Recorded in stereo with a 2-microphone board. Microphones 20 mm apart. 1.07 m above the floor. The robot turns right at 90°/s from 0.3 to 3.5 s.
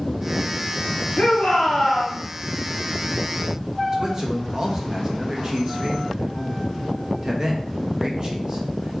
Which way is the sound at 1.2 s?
80° left.